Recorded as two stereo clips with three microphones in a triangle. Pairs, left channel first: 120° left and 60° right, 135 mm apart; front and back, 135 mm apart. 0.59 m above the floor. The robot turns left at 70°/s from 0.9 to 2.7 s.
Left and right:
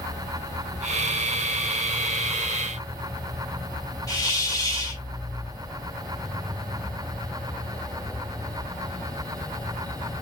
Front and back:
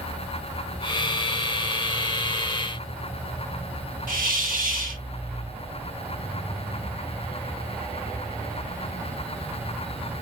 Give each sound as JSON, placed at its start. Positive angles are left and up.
{"t": 4.1, "sound": "a hiss", "azimuth_deg": -175, "distance_m": 0.9}